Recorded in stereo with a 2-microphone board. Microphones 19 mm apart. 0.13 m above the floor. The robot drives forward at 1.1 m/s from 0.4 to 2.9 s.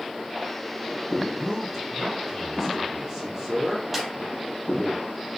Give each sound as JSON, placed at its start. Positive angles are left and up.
{"t": 1.4, "sound": "a man speaking", "side_deg": -15, "distance_m": 5.5}
{"t": 3.9, "sound": "a snare drum", "side_deg": -15, "distance_m": 3.5}